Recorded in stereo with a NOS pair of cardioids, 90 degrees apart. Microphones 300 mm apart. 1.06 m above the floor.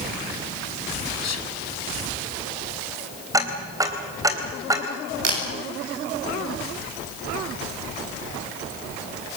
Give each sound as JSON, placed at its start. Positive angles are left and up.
{"t": 1.2, "sound": "whispering", "azimuth_deg": 60, "distance_m": 1.1}
{"t": 3.3, "sound": "ticking", "azimuth_deg": -10, "distance_m": 4.0}
{"t": 5.2, "sound": "a camera shutter", "azimuth_deg": -55, "distance_m": 9.5}